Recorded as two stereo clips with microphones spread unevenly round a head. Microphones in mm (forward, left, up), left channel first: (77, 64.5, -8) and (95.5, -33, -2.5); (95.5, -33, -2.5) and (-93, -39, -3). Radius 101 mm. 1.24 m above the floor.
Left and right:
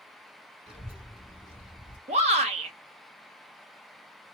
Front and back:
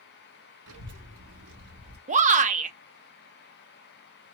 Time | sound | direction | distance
0.7 | a child speaking | 165° right | 1.3 m
2.1 | a shout | 125° right | 0.7 m